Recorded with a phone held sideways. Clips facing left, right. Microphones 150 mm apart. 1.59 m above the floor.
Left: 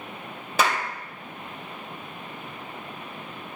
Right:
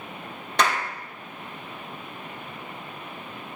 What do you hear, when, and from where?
0.6 s a clap: 5° left (ahead or behind), 1.2 m